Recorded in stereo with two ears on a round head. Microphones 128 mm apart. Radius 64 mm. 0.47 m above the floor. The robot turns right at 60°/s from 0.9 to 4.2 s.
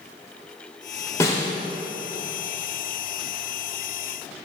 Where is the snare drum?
20° left (ahead or behind), 1.9 m; by 1.5 s 35° left (ahead or behind), 1.9 m.